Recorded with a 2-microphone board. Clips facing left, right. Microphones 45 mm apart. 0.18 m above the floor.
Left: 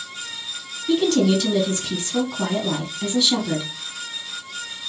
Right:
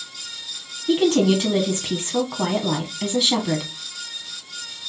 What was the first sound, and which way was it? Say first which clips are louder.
A woman speaking: right 1 dB; 25° right (ahead or behind).